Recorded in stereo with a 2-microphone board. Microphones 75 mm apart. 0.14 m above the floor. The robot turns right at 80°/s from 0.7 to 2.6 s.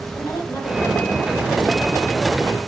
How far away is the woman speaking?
About 4 m.